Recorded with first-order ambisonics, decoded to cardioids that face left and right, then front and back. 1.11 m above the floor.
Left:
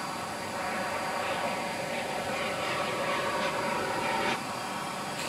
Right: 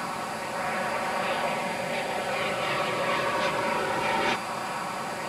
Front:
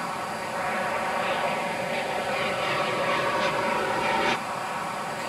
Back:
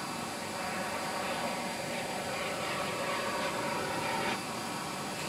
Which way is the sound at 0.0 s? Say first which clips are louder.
Right 3 dB, front 7 dB; 25° right.